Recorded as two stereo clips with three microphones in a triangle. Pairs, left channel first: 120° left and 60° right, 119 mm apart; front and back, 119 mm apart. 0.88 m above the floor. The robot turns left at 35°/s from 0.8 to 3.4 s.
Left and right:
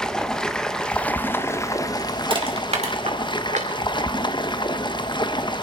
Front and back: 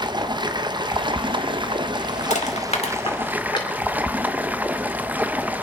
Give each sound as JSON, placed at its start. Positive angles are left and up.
{"t": 0.0, "sound": "running water", "azimuth_deg": -160, "distance_m": 0.8}
{"t": 2.3, "sound": "crushing", "azimuth_deg": -15, "distance_m": 2.0}